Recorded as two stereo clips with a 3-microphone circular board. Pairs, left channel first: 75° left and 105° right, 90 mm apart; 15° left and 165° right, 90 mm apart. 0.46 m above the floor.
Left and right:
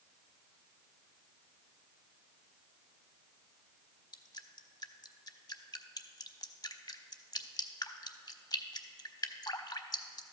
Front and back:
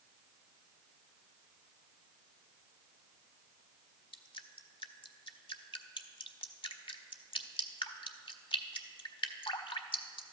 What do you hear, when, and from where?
4.1 s dripping: 35° left, 0.6 m